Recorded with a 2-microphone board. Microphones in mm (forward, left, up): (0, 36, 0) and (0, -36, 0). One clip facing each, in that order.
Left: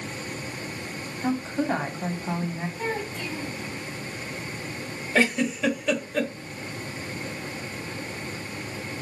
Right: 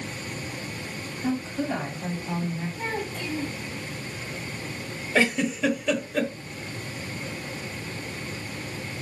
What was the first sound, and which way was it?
A woman speaking, 40° left (ahead or behind).